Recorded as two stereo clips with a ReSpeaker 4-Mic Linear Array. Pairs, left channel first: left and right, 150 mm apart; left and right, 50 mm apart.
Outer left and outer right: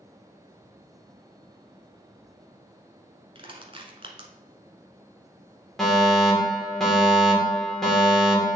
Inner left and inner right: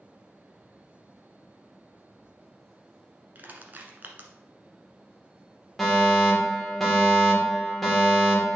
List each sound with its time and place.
3.4 s crushing: 40° right (ahead or behind), 1.0 m
5.8 s a fire alarm: centre (ahead or behind), 1.9 m